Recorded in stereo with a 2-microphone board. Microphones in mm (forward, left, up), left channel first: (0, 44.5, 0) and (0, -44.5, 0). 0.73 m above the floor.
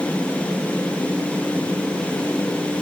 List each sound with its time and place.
Only background noise.